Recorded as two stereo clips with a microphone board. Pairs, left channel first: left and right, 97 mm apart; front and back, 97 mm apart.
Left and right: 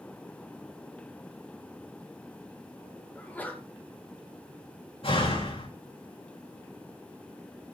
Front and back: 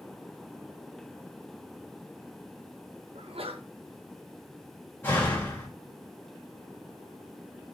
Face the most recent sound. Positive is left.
turn(degrees=70)